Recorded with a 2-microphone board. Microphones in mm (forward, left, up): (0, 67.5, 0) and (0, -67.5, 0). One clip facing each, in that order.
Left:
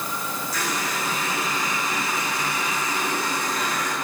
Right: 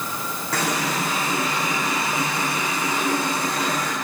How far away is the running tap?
About 4.5 m.